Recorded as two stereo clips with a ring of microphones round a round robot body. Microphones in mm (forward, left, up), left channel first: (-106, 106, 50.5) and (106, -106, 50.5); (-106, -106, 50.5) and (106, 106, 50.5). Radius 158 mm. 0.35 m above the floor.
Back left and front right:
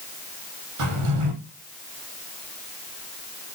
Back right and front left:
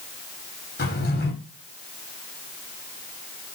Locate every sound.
0.8 s a drawer: 75° right, 6 m